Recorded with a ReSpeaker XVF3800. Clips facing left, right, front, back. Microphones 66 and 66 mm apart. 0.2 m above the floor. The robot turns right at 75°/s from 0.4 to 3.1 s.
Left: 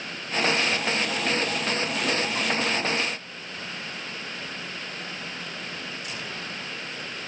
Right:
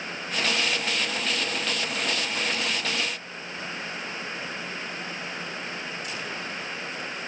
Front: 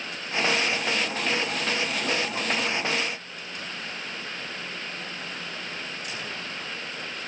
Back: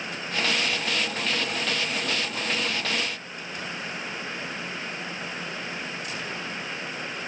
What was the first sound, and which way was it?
Only background noise.